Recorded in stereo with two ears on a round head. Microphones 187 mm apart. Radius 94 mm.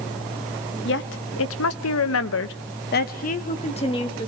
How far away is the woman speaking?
About 1.4 m.